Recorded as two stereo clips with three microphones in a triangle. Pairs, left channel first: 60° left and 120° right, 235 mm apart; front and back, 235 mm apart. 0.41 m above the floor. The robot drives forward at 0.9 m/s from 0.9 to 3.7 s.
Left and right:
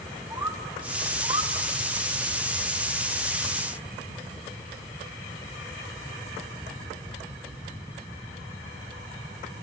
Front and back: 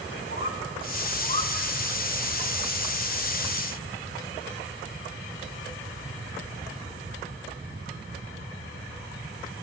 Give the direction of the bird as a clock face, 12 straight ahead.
1 o'clock.